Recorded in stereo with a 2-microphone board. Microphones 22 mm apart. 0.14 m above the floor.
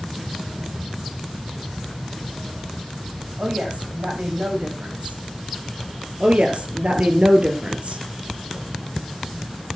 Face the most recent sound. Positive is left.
turn(degrees=-65)  # may be behind; listen again after turning